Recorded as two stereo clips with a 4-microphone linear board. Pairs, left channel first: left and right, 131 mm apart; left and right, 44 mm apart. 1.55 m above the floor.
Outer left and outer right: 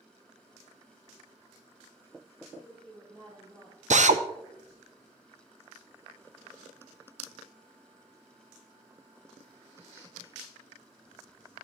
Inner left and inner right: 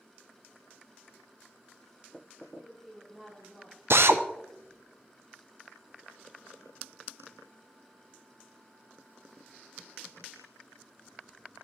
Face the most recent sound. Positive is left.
turn(degrees=-65)  # may be behind; listen again after turning